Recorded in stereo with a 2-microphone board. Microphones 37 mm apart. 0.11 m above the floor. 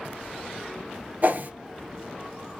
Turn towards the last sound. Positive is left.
turn(degrees=-50)  # may be behind; listen again after turning